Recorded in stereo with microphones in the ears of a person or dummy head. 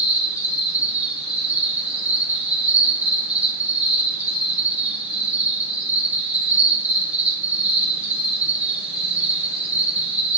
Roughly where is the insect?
Centre.